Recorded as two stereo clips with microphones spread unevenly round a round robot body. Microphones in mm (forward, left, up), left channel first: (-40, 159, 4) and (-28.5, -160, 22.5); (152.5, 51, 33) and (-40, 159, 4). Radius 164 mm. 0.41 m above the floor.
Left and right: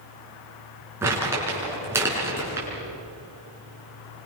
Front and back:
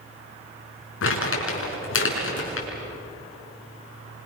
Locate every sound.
1.0 s crumpling: 5° right, 5.5 m